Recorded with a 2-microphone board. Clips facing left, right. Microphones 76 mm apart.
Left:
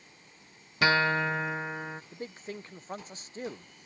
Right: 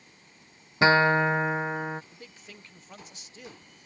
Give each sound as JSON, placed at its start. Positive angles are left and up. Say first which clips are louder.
{"t": 0.8, "sound": "a guitar", "louder": "right 5 dB", "side_deg": -25}
{"t": 2.1, "sound": "a man speaking", "louder": "left 9 dB", "side_deg": 40}